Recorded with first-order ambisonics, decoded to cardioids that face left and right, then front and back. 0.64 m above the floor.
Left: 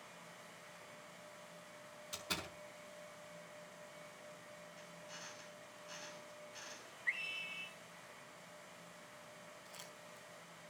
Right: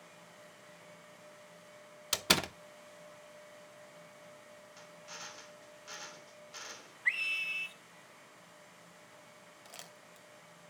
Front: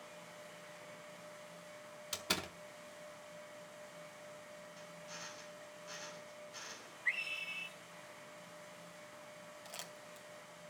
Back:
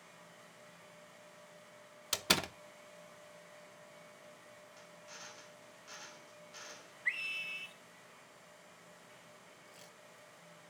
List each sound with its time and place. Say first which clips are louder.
2.1 s a door slam: right 13 dB, back 6 dB; 120° right, 0.6 m
4.8 s a drill: right 7 dB, front 2 dB; 95° right, 2.5 m
7.0 s a scream: right 8 dB, back 1 dB; 100° right, 1.7 m
9.7 s crumpling: right 5 dB, front 6 dB; 40° right, 2.5 m